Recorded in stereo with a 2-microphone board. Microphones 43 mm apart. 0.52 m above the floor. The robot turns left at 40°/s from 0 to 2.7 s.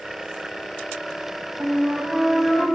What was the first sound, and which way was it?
A flute, 140° right.